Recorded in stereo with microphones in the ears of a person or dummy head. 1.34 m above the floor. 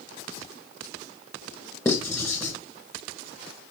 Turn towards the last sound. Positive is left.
turn(degrees=10)  # may be behind; listen again after turning